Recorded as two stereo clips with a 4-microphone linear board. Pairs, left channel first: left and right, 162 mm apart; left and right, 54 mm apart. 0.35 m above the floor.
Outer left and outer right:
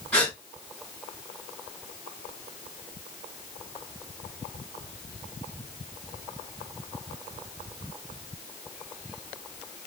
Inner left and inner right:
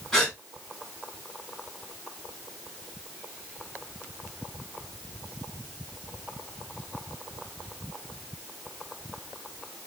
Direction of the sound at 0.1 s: 10° left (ahead or behind).